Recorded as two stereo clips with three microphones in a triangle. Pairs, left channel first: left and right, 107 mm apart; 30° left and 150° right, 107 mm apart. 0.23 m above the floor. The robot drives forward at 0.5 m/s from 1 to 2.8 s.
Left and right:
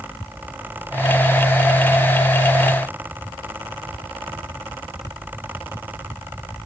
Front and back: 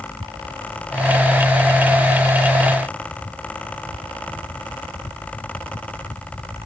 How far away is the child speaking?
I don't hear a child speaking.